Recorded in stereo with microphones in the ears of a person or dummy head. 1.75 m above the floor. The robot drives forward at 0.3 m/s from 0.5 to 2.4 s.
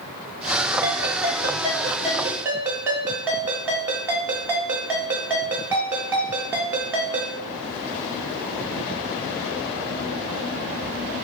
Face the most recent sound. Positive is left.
turn(degrees=-10)  # may be behind; listen again after turning